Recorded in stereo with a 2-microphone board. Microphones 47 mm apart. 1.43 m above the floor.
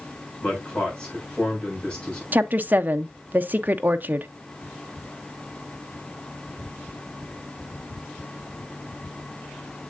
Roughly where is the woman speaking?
Right.